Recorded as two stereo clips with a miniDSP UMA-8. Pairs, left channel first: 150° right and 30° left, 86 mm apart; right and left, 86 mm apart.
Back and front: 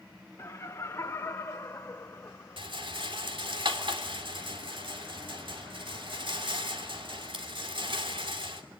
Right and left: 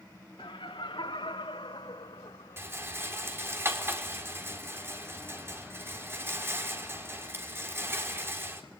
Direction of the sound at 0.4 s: 90° right.